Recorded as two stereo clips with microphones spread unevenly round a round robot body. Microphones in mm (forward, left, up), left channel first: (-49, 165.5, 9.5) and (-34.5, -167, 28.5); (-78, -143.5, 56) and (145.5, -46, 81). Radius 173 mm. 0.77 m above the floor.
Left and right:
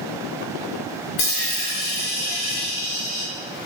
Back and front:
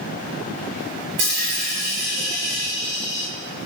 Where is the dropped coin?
55° left, 3 m.